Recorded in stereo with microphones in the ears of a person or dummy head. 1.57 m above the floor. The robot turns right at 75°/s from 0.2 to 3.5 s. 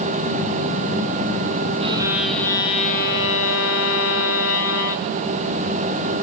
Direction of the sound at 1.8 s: 35° right.